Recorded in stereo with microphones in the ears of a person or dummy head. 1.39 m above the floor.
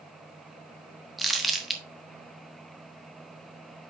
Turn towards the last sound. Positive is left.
turn(degrees=0)  # may be behind; listen again after turning